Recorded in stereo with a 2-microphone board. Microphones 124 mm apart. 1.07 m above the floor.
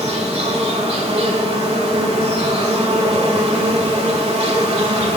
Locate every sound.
0.0 s an insect: 55° right (ahead or behind), 1.9 m